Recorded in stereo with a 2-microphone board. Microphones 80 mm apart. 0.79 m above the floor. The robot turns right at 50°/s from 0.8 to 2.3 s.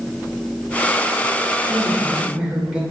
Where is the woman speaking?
160° left, 3 m; by 2.8 s 165° right, 3 m.